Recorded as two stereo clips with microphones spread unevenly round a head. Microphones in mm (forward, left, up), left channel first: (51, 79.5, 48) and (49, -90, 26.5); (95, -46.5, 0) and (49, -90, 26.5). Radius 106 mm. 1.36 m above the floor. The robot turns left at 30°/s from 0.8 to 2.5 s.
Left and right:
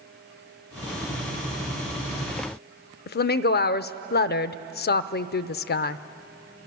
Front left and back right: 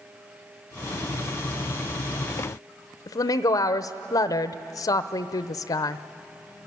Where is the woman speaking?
60° left, 0.7 m.